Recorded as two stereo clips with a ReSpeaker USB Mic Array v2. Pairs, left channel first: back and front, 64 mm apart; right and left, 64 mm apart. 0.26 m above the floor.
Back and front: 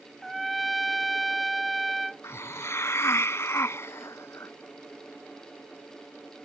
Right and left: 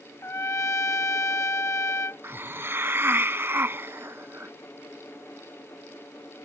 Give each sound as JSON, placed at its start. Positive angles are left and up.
{"t": 0.2, "sound": "a trumpet", "azimuth_deg": -90}
{"t": 2.2, "sound": "a hiss", "azimuth_deg": 140}